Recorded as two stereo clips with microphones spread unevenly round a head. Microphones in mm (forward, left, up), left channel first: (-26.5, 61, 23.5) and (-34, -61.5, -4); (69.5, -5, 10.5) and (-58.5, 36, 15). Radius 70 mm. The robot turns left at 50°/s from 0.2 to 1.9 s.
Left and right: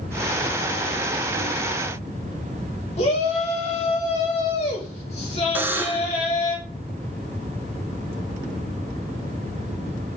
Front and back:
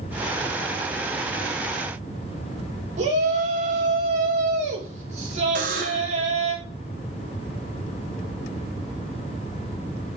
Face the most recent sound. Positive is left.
turn(degrees=-165)